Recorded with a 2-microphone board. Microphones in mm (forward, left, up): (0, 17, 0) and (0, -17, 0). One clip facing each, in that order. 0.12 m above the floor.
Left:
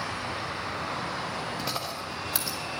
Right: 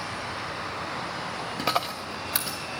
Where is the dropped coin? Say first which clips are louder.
Right 5 dB; 35° right (ahead or behind), 1.1 m.